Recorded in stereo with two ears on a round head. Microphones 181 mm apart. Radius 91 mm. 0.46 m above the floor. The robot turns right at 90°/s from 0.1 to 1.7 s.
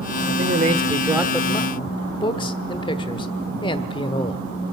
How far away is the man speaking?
About 1.1 m.